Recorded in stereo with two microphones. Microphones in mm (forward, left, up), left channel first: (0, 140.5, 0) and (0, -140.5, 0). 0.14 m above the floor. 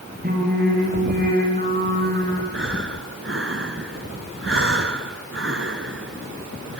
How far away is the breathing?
About 1.1 m.